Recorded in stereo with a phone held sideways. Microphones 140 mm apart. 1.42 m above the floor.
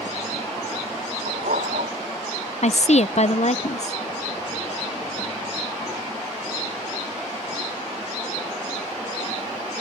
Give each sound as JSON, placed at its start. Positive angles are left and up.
{"t": 1.3, "sound": "a dog barking", "side_deg": -80}
{"t": 2.6, "sound": "a woman speaking", "side_deg": 60}